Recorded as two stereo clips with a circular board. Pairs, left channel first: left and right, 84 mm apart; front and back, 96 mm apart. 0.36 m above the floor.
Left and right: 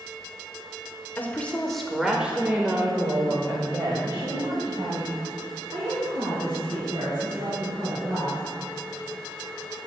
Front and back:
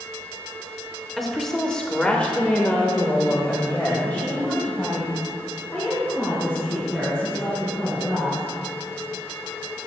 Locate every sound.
1.2 s a woman speaking: 90° left, 0.9 m; by 8.4 s 70° right, 4 m